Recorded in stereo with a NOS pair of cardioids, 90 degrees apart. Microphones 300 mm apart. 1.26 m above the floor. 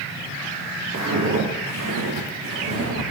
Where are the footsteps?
65° right, 4.5 m; by 3.0 s 60° right, 6 m.